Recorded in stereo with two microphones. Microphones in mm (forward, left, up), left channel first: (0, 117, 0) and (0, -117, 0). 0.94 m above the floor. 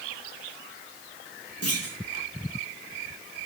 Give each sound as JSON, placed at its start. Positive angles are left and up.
{"t": 1.6, "sound": "a clunk", "side_deg": 85, "distance_m": 6.5}